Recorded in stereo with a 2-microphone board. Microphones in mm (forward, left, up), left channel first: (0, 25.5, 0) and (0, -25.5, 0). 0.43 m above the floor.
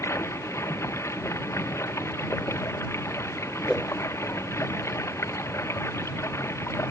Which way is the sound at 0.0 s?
65° left (ahead or behind).